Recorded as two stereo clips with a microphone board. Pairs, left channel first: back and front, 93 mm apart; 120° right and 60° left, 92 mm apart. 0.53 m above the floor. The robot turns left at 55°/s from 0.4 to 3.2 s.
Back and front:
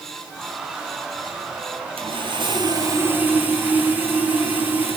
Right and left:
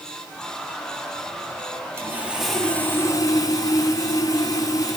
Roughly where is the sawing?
Ahead.